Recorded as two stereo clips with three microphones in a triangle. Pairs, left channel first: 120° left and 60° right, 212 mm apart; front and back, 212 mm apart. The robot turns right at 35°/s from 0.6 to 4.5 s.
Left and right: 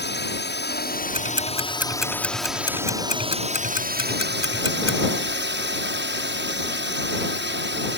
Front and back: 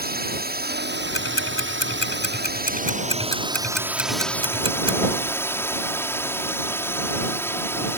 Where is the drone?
145° left; by 8.0 s 80° right.